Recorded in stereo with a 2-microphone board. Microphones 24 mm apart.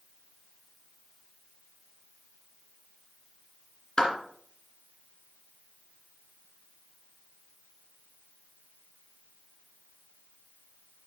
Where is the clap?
30° left (ahead or behind), 2 m.